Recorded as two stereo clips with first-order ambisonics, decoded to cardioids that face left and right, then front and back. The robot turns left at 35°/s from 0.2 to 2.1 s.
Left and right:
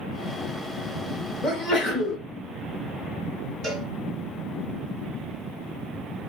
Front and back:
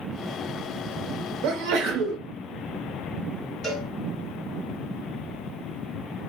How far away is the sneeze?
About 1.1 m.